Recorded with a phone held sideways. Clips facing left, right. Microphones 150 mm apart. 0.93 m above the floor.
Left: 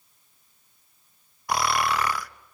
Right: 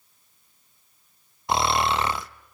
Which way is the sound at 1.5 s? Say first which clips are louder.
Right 2 dB; 25° right (ahead or behind).